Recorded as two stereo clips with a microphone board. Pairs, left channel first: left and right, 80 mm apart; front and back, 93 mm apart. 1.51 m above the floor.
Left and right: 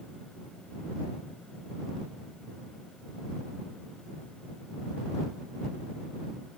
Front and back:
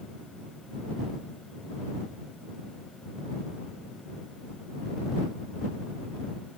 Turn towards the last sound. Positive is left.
No sound to turn to.